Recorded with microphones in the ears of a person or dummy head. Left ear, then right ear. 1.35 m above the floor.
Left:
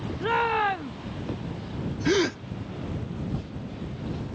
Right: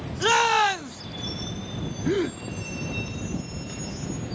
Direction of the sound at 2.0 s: 30° left (ahead or behind).